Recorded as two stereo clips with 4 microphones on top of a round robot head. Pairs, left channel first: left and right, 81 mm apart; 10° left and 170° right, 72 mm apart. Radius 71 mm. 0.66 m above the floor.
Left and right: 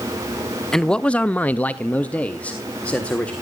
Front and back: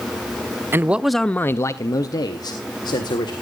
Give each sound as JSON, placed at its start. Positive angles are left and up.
{"t": 0.7, "sound": "a man speaking", "azimuth_deg": 170, "distance_m": 0.5}